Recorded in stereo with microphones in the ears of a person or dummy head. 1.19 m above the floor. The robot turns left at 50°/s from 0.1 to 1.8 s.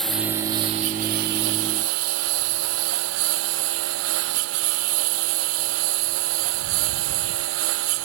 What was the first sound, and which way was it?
A lawn mower, 5° right (ahead or behind).